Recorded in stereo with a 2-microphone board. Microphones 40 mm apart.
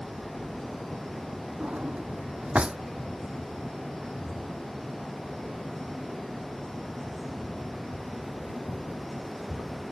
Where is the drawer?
30° right (ahead or behind).